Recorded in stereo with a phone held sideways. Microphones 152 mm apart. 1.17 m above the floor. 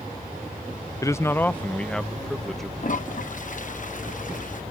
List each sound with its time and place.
1.0 s a man speaking: 20° left (ahead or behind); by 2.7 s centre (ahead or behind)
2.8 s a toilet flushing: 60° left (ahead or behind)